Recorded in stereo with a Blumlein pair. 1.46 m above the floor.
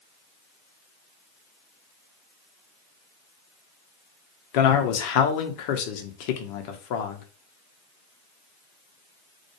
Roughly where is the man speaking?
Ahead left.